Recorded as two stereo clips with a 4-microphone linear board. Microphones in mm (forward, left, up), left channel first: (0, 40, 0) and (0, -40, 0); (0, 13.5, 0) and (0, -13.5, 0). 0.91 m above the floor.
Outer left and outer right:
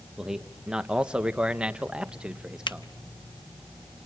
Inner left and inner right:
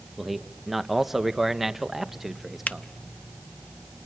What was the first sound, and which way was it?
A man speaking, 10° right (ahead or behind).